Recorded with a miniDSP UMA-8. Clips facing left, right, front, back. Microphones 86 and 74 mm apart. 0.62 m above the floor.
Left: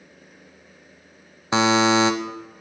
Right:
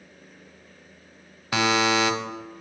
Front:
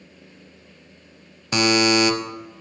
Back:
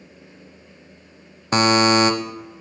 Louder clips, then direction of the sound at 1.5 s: Left 4 dB, back 2 dB; 145° left.